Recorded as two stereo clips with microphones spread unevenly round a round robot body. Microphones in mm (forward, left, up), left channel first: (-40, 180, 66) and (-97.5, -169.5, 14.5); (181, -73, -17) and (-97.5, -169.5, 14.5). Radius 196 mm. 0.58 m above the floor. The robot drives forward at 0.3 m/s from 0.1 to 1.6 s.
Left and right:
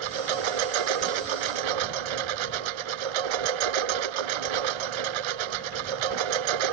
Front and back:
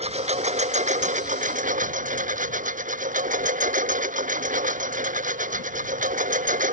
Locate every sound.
0.0 s a lawn mower: 90° right; by 6.7 s 95° right